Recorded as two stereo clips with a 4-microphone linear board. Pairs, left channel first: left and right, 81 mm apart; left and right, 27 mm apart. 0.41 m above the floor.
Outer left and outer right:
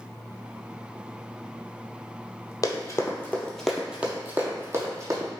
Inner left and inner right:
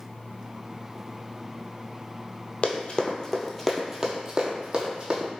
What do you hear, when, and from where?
2.6 s running footsteps: 50° left (ahead or behind), 0.8 m; by 5.3 s 45° right (ahead or behind), 1.4 m